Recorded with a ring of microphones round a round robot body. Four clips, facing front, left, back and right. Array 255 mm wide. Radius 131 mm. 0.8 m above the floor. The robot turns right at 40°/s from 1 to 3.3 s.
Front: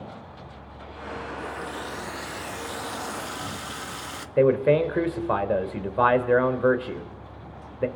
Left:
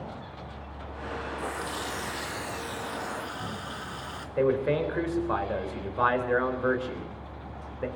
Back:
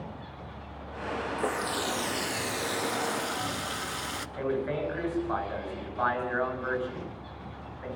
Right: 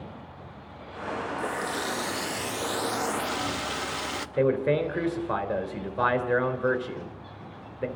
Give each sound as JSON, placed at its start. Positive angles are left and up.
{"t": 1.4, "sound": "a running tap", "azimuth_deg": -170, "distance_m": 0.6}
{"t": 4.4, "sound": "a man speaking", "azimuth_deg": -10, "distance_m": 3.0}